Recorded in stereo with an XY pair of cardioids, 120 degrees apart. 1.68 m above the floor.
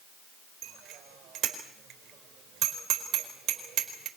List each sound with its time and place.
0.6 s a bicycle bell: 65° right, 4.5 m